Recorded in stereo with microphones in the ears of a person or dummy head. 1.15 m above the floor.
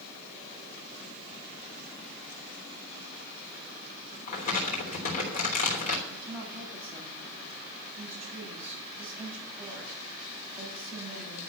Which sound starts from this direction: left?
Crumpling, at 4.3 s.